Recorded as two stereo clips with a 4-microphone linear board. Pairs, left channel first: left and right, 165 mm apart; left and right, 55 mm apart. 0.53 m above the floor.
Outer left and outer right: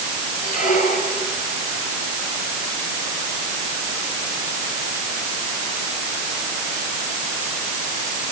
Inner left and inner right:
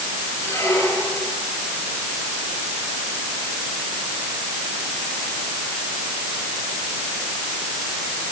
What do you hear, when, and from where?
0.4 s a squeak: 55° left (ahead or behind), 8 m